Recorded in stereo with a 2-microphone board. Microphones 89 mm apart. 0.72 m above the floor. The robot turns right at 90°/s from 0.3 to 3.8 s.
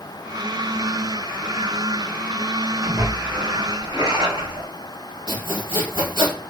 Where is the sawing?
60° right (ahead or behind), 1.8 m.